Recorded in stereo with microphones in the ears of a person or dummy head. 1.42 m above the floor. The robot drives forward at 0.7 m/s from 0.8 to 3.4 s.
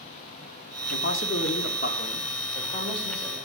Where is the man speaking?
60° left (ahead or behind), 0.8 m; by 3.4 s 25° left (ahead or behind), 1.7 m.